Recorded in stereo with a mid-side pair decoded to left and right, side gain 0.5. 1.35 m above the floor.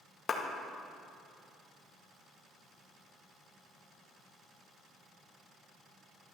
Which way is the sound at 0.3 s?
45° left.